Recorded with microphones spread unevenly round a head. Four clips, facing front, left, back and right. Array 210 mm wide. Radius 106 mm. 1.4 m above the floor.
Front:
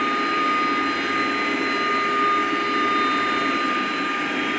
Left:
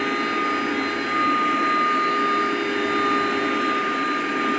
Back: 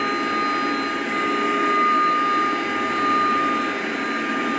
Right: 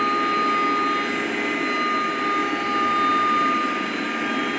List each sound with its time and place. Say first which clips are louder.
0.0 s a machine running: right 2 dB, front 1 dB; 155° right, 1.2 m